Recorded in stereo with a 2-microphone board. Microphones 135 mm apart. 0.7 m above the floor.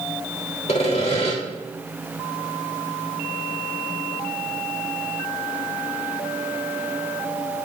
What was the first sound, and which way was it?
Sawing, 55° left (ahead or behind).